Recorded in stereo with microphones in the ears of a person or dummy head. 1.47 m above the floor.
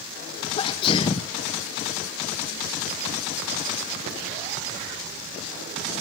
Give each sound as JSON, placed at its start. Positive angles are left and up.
{"t": 0.6, "sound": "a sneeze", "side_deg": 30, "distance_m": 1.1}